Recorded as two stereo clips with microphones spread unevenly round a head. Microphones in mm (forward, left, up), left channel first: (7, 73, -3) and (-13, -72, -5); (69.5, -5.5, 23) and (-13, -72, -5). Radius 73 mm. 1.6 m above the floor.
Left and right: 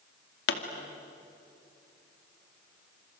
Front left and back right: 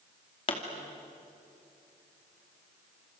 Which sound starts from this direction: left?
A pop, at 0.5 s.